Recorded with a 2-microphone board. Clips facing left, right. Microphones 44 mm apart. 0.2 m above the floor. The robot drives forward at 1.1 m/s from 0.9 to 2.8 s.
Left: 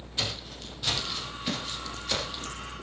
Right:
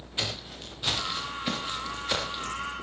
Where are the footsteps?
20° right (ahead or behind), 9 m; by 2.6 s 25° right (ahead or behind), 4.5 m.